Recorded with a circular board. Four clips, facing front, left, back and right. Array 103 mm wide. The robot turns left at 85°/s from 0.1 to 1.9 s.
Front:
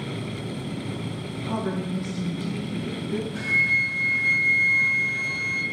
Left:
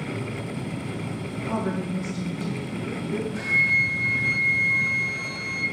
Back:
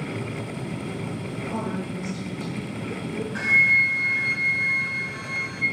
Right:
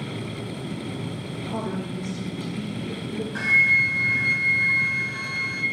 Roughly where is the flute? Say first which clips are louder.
Right 2 dB, back 3 dB; behind right.